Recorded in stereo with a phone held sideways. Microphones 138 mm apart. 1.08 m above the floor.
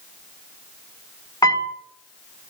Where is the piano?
25° left (ahead or behind), 0.8 m.